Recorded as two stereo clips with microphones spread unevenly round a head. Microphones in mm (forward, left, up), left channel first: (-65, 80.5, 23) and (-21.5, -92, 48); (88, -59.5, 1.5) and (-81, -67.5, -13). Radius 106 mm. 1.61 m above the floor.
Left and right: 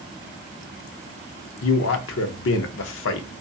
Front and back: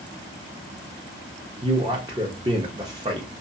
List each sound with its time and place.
1.6 s a man speaking: 110° left, 0.5 m